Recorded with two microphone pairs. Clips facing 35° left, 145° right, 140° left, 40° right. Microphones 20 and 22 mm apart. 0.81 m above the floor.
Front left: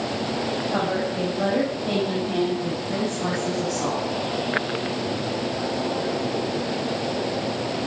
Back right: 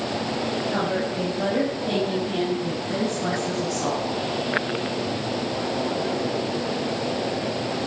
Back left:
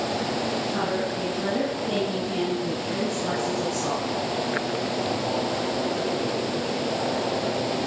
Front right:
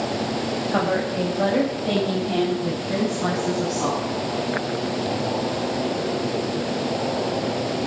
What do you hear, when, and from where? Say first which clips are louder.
0.7 s a woman speaking: even, front right 4 dB; 45° right, 4.5 m; by 4.2 s 40° right, 7 m